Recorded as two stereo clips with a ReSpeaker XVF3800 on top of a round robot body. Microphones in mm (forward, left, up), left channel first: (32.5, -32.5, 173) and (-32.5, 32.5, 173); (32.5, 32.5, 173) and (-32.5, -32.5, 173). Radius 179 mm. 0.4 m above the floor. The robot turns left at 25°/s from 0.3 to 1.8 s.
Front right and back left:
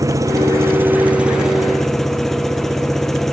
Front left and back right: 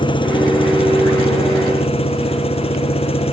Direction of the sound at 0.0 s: 80° left.